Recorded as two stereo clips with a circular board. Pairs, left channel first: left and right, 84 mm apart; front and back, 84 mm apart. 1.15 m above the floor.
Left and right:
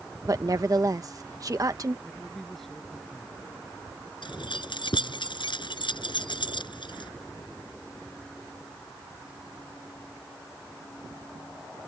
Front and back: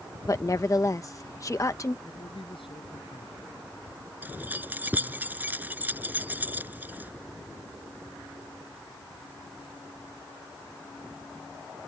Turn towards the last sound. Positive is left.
turn(degrees=110)